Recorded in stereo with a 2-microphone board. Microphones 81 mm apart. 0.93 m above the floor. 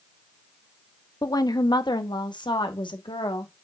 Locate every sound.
1.2 s a woman speaking: 45° left (ahead or behind), 0.8 m; by 3.5 s 80° left, 1.8 m